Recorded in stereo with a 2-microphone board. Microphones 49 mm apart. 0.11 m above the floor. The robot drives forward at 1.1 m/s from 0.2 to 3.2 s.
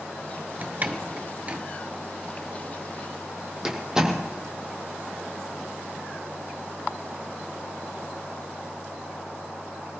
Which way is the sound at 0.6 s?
35° right (ahead or behind).